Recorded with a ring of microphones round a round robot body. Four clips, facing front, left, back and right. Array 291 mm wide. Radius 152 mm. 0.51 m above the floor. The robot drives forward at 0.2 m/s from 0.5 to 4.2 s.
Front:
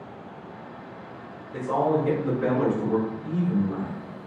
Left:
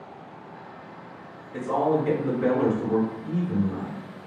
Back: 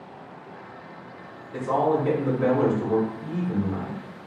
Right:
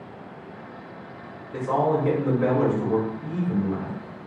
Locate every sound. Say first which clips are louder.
1.5 s a man speaking: right 1 dB, back 1 dB; 130° right, 1.2 m; by 4.0 s 145° right, 1.5 m